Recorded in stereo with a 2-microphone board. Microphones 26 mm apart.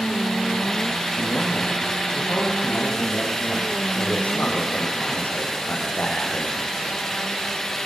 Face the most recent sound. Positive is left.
turn(degrees=80)